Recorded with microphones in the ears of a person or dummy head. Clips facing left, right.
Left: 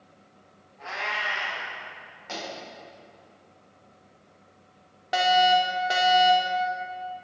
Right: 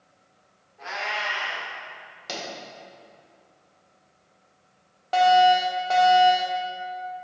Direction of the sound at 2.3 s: 55° right (ahead or behind).